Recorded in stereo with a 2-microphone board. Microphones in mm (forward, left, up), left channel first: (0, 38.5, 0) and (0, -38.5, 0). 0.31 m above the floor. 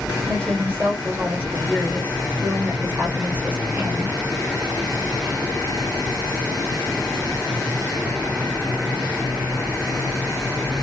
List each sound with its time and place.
0.3 s a woman speaking: 25° right (ahead or behind), 1.0 m